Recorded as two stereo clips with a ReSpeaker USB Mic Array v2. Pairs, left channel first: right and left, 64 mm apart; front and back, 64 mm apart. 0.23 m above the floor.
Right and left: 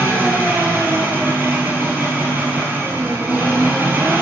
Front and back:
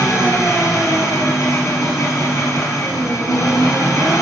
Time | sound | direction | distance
0.0 | an engine running | 30° left | 2 m